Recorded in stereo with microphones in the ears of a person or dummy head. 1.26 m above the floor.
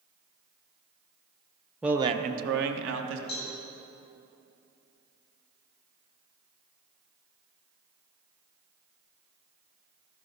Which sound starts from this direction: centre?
A man speaking, at 1.8 s.